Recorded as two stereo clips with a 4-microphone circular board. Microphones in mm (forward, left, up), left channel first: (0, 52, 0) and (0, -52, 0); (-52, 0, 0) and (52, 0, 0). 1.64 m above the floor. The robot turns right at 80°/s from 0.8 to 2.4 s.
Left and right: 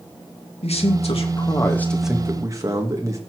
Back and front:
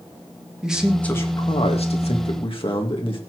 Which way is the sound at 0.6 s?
85° left.